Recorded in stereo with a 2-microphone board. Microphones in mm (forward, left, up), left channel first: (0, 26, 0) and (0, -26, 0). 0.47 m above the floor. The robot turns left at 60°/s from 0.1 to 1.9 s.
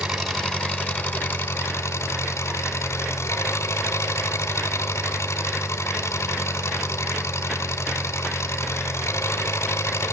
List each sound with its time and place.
0.0 s an engine running: 175° right, 3 m; by 10.1 s 80° left, 3 m